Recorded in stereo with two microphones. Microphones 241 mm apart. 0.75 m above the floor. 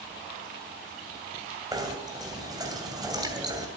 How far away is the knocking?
About 2.5 m.